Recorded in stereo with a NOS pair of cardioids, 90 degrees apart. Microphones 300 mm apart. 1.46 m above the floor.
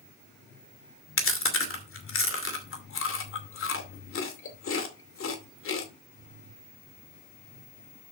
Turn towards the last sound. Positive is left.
turn(degrees=45)